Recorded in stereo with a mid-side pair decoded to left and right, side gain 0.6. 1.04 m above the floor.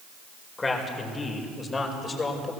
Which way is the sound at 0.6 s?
20° left.